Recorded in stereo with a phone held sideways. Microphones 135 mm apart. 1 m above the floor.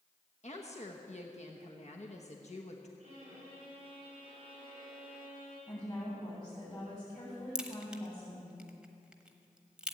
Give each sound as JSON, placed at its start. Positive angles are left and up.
{"t": 0.4, "sound": "a woman speaking", "side_deg": 55, "distance_m": 1.1}
{"t": 3.0, "sound": "a violin", "side_deg": -50, "distance_m": 6.0}
{"t": 5.7, "sound": "a woman speaking", "side_deg": 35, "distance_m": 7.0}
{"t": 7.5, "sound": "a crack", "side_deg": -5, "distance_m": 1.0}